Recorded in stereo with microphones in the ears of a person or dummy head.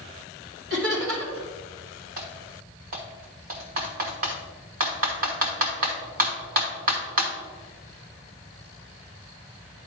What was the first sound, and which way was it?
Laughter, 80° right.